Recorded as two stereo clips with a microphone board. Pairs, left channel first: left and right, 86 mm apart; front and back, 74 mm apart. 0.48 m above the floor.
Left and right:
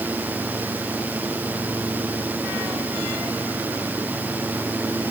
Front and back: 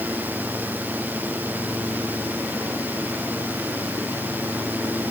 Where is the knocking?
No knocking in this recording.